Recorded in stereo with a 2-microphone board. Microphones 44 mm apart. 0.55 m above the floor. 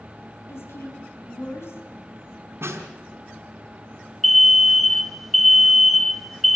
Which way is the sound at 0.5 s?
75° left (ahead or behind).